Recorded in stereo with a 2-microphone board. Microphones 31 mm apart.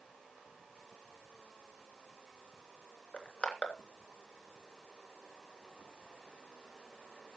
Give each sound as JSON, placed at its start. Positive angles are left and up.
{"t": 3.1, "sound": "crushing", "side_deg": 35, "distance_m": 3.0}